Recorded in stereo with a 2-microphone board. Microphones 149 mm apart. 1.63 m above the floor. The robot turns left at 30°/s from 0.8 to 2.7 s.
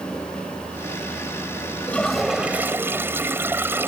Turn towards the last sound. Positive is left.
turn(degrees=-15)  # may be behind; listen again after turning